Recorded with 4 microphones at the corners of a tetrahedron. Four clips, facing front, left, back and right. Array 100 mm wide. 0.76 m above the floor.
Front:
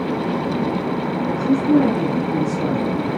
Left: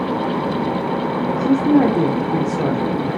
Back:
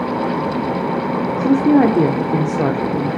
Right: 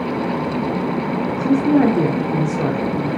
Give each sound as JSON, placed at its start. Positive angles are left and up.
{"t": 1.4, "sound": "a woman speaking", "azimuth_deg": 170, "distance_m": 1.7}